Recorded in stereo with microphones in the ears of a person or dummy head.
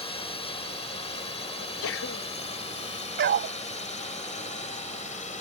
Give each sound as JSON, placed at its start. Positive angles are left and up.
{"t": 0.0, "sound": "a drone", "side_deg": 25}
{"t": 1.6, "sound": "a sneeze", "side_deg": 75}
{"t": 3.2, "sound": "a dog barking", "side_deg": -55}